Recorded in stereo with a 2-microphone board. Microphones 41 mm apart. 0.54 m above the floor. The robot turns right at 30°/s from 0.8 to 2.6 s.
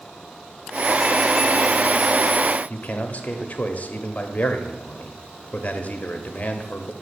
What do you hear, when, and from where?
2.7 s a man speaking: 35° left (ahead or behind), 0.7 m